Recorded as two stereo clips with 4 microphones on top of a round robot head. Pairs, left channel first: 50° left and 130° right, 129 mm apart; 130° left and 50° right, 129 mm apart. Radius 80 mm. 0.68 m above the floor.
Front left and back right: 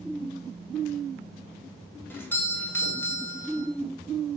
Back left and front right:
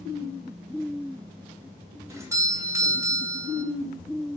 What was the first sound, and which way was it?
A doorbell, 10° right.